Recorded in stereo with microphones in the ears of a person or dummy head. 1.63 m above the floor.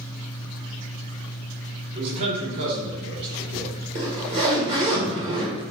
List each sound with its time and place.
1.9 s a man speaking: 45° right (ahead or behind), 1.8 m
4.0 s a zipper: 30° right (ahead or behind), 1.5 m